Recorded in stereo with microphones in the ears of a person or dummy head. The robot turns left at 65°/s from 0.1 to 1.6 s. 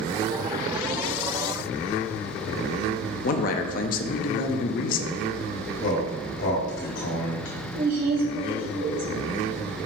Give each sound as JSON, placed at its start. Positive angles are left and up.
{"t": 3.2, "sound": "a man speaking", "side_deg": 45, "distance_m": 0.5}
{"t": 5.8, "sound": "a man speaking", "side_deg": 65, "distance_m": 1.8}
{"t": 7.8, "sound": "a woman speaking", "side_deg": -40, "distance_m": 0.7}